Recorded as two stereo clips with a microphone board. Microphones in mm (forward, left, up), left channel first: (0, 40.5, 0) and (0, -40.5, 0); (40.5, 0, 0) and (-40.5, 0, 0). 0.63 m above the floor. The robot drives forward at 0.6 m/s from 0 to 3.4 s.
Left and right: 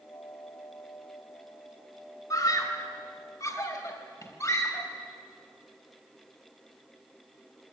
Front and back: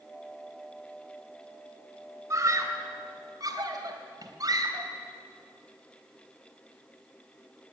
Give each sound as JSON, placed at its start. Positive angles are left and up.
{"t": 2.3, "sound": "a scream", "azimuth_deg": 130, "distance_m": 3.5}